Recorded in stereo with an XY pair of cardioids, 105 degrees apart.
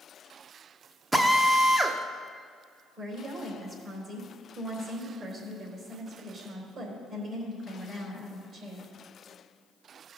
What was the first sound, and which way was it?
A drill, 15° right.